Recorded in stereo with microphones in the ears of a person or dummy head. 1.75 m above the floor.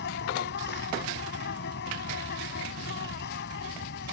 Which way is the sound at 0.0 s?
55° left (ahead or behind).